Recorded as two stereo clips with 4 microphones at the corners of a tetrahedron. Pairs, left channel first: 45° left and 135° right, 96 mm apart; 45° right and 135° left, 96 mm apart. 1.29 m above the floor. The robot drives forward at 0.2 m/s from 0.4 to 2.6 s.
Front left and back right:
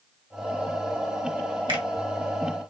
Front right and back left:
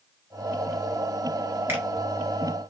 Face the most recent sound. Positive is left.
turn(degrees=-160)